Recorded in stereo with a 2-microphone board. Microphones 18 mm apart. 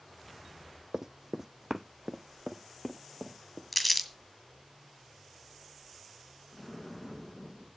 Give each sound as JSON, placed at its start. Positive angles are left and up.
{"t": 0.9, "sound": "running footsteps", "side_deg": -40, "distance_m": 0.5}
{"t": 3.7, "sound": "crumpling", "side_deg": 5, "distance_m": 1.9}
{"t": 6.5, "sound": "an explosion", "side_deg": 15, "distance_m": 3.0}